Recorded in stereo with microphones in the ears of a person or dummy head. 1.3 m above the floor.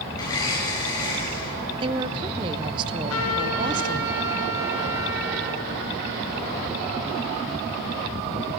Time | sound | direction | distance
0.1 | a blender | 20° left (ahead or behind) | 6 m
1.8 | a woman speaking | 25° right (ahead or behind) | 0.7 m
3.1 | a trumpet | 80° left | 5 m